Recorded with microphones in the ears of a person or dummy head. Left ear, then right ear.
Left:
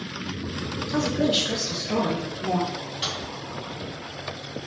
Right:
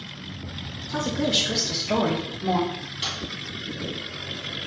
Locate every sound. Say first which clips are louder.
0.9 s a woman speaking: even; 25° left (ahead or behind), 0.8 m; by 2.6 s 50° right (ahead or behind), 0.9 m
2.7 s a microwave: even; 5° left (ahead or behind), 1.8 m